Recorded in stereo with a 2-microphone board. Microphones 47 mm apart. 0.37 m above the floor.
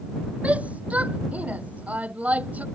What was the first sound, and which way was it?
A shout, 30° right (ahead or behind).